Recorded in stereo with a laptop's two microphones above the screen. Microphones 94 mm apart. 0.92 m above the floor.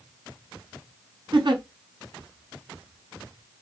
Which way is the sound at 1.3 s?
60° right (ahead or behind).